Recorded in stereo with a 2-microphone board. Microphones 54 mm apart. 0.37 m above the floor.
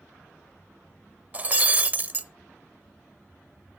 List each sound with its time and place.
1.3 s breaking glass: 30° right (ahead or behind), 0.6 m